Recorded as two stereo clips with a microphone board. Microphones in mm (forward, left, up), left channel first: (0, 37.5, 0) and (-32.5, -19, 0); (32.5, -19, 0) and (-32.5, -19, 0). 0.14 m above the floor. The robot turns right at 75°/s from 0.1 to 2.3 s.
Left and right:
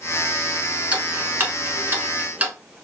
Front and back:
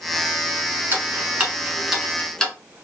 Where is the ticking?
175° right, 0.8 m; by 2.5 s 70° right, 0.8 m.